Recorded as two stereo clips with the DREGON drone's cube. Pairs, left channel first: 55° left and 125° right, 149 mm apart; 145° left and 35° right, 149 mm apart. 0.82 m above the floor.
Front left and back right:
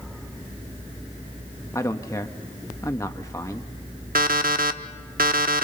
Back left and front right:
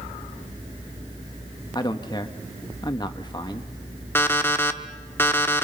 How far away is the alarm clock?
About 0.9 m.